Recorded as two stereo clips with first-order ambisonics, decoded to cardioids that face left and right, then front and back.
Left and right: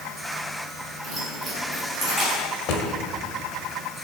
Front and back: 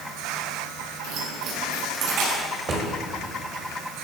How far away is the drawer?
About 1.4 m.